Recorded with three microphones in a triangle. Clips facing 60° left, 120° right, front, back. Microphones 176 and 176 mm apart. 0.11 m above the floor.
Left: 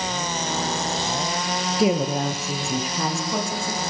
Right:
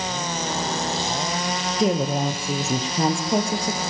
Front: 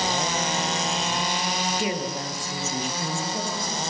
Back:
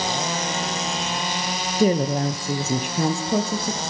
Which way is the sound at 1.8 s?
140° left.